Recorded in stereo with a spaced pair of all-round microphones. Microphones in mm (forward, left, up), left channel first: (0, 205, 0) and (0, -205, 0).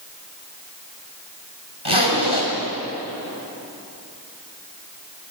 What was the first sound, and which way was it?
A zipper, 75° left (ahead or behind).